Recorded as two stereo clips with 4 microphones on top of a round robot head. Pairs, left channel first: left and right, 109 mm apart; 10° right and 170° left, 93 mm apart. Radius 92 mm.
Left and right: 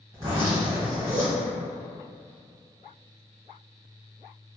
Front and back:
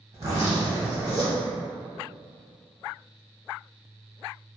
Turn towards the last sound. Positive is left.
turn(degrees=-130)